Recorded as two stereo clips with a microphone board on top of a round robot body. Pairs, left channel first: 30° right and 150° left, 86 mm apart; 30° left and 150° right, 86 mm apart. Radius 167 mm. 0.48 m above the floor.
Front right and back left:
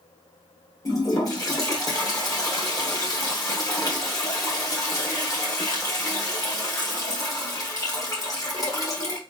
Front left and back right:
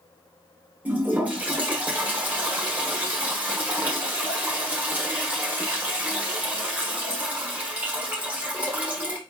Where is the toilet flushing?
75° right, 1.4 m.